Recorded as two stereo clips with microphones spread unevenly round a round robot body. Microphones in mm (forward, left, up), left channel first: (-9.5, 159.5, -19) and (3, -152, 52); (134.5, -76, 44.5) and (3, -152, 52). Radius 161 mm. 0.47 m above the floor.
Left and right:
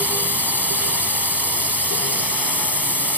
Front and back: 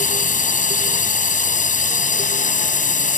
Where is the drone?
Straight ahead.